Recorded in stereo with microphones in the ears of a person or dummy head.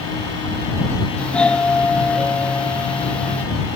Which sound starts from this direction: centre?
A doorbell, at 1.2 s.